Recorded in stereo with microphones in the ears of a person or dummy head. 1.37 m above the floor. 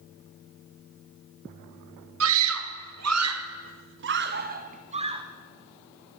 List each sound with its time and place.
2.2 s a scream: 75° right (ahead or behind), 1.5 m; by 5.2 s 25° right (ahead or behind), 1.2 m